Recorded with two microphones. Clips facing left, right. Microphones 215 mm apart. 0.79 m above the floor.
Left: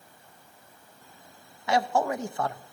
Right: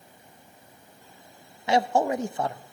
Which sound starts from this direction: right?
A man speaking, at 1.7 s.